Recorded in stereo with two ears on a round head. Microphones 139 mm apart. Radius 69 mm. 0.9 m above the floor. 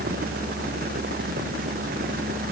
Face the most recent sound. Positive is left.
No sound to turn to.